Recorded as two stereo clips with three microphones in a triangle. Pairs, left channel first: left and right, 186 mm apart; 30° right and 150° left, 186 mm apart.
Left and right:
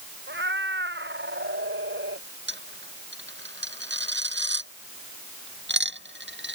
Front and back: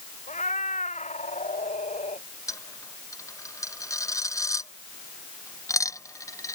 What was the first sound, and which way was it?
A cat meowing, 80° right.